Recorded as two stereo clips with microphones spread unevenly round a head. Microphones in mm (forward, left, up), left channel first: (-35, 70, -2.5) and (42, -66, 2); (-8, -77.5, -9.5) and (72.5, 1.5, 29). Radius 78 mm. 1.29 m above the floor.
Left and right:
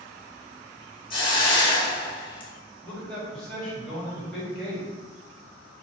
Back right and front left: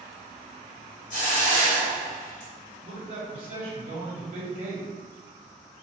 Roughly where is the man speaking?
Ahead left.